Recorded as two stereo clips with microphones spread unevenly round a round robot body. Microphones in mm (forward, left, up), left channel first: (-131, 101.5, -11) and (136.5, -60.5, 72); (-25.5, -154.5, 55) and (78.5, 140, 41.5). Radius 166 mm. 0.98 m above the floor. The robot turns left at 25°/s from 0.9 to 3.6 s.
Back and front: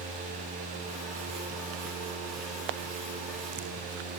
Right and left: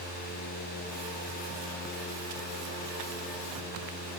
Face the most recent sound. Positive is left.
No sound to turn to.